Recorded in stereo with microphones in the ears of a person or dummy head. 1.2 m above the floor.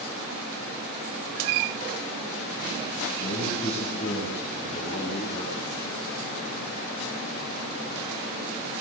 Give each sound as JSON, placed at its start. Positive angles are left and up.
{"t": 3.2, "sound": "a man speaking", "side_deg": 35, "distance_m": 8.5}